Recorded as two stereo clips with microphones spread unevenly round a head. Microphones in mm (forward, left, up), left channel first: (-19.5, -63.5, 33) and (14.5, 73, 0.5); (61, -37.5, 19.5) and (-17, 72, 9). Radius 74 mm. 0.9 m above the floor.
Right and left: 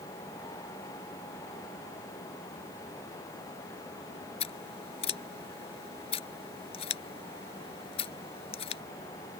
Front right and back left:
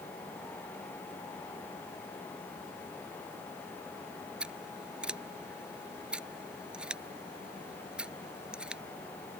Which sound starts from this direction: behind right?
Scissors, at 4.4 s.